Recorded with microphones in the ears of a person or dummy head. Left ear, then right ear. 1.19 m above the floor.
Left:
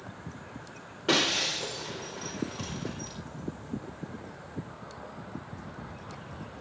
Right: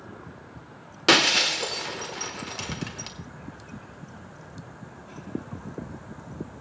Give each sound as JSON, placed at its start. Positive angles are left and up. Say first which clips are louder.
{"t": 1.1, "sound": "breaking glass", "louder": "right 7 dB", "side_deg": -40, "distance_m": 1.1}